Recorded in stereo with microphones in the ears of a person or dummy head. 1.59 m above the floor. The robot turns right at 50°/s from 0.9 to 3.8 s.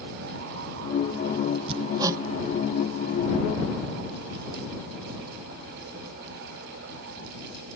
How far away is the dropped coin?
I don't hear a dropped coin.